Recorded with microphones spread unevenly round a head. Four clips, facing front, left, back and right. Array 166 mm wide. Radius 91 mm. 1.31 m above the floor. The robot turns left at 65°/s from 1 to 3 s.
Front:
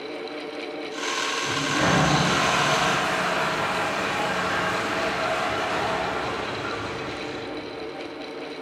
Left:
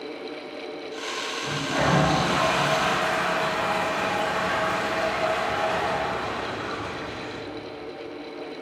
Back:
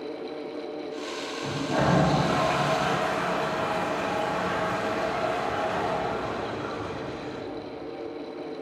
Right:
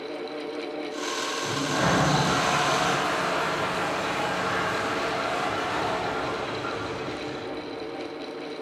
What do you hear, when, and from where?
1.4 s a toilet flushing: 165° right, 3.5 m; by 7.4 s 90° left, 3.5 m